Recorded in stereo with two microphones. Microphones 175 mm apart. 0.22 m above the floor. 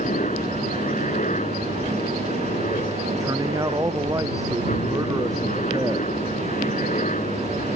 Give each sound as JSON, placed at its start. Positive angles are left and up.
{"t": 0.0, "sound": "a helicopter", "side_deg": 45}
{"t": 3.2, "sound": "a man speaking", "side_deg": -20}